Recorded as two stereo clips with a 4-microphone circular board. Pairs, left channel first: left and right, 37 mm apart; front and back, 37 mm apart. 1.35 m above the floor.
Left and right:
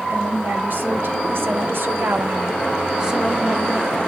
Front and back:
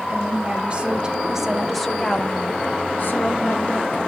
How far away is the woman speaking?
About 2.5 m.